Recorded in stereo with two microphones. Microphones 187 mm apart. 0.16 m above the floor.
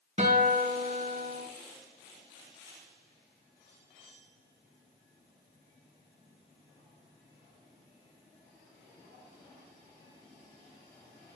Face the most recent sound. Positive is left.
turn(degrees=-35)  # may be behind; listen again after turning